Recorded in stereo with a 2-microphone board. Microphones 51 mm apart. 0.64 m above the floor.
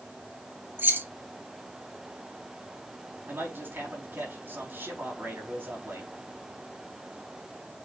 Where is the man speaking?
45° right (ahead or behind), 4.5 m.